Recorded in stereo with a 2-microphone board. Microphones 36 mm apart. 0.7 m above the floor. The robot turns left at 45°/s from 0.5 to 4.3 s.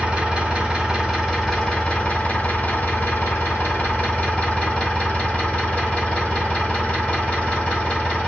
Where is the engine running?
155° right, 1.9 m; by 8.3 s 35° left, 1.9 m.